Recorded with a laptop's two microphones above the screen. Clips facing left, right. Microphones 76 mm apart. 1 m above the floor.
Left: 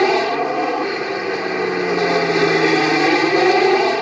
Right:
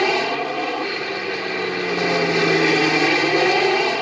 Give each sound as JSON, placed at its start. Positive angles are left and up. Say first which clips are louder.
{"t": 0.0, "sound": "an aircraft", "louder": "left 4 dB", "side_deg": 20}